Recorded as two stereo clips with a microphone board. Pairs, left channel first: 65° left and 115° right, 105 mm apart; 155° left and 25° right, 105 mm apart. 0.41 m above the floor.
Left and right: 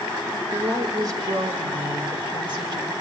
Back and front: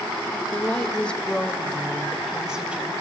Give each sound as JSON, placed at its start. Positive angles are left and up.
{"t": 0.3, "sound": "a woman speaking", "azimuth_deg": -160, "distance_m": 1.6}